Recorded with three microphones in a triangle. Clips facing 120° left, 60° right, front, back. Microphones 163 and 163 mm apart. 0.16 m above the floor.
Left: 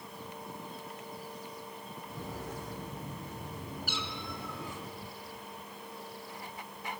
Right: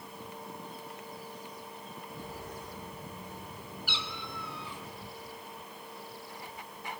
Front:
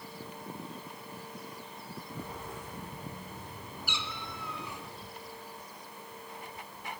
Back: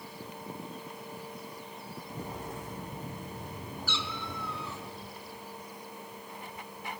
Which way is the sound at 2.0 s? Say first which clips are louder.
Left 3 dB, back 3 dB; 130° left.